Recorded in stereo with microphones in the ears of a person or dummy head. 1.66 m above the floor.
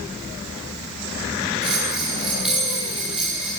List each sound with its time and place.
1.6 s a bell: 5° right (ahead or behind), 6 m